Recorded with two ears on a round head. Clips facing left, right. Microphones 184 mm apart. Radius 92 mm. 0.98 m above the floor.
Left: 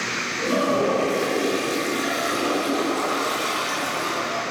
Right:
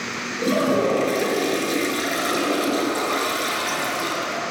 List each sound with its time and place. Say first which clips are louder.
0.4 s a toilet flushing: right 2 dB; 50° right (ahead or behind), 7 m